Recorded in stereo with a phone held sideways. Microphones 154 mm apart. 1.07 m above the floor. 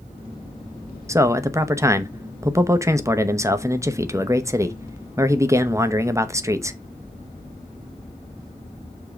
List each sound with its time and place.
1.1 s a man speaking: 20° right (ahead or behind), 0.9 m